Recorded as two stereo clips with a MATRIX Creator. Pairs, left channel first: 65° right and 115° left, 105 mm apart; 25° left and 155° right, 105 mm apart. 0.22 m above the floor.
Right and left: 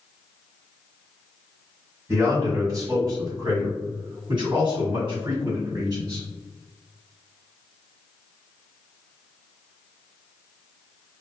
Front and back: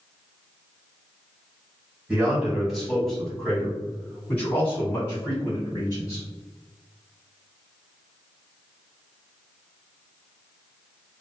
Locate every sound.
2.1 s a man speaking: 135° left, 1.7 m; by 6.2 s 80° left, 3 m